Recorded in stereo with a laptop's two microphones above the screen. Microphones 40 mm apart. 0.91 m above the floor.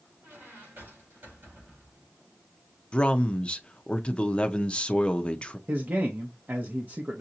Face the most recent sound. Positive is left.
turn(degrees=-50)  # may be behind; listen again after turning